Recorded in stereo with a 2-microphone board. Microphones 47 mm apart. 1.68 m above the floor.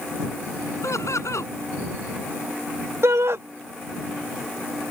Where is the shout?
70° right (ahead or behind).